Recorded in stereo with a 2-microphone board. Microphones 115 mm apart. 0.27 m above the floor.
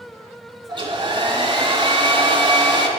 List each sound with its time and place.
0.7 s a hair dryer: 40° right (ahead or behind), 3.5 m